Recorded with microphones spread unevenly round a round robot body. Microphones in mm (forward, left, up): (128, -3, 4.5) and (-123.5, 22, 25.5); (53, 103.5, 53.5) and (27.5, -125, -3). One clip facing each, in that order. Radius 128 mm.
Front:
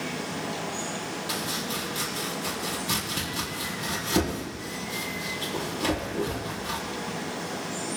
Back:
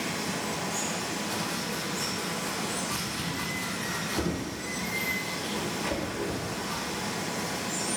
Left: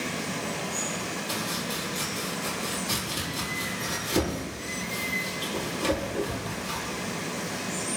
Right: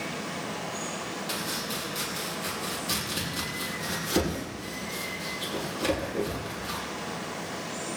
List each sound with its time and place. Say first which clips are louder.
0.0 s running water: front 1 dB, left 3 dB; 130° left, 4.5 m
1.3 s chopping: front 1 dB, left 2 dB; 10° right, 6 m